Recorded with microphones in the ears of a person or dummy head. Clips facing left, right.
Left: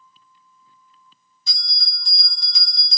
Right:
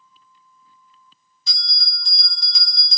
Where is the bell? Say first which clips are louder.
Right 2 dB; 60° right (ahead or behind), 2 m.